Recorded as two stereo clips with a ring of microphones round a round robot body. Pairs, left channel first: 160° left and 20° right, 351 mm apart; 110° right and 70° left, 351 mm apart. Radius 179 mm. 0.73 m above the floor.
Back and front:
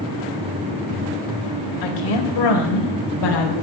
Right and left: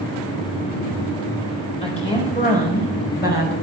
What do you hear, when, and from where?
1.8 s a woman speaking: 175° left, 4 m; by 3.5 s 175° right, 5 m